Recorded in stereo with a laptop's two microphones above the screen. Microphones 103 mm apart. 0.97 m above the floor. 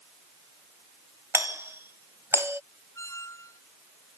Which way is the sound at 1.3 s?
20° right (ahead or behind).